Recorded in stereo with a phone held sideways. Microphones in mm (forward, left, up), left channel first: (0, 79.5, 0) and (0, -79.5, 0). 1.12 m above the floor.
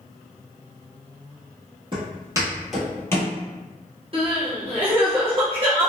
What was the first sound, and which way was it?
Footsteps, 35° right (ahead or behind).